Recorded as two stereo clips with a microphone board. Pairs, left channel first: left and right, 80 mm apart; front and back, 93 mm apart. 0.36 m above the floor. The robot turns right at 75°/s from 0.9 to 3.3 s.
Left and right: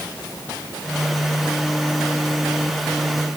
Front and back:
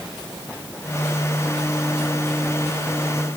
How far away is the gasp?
I don't hear a gasp.